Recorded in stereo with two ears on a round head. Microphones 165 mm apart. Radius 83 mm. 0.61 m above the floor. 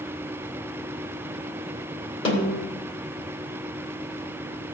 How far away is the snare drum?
About 2.5 m.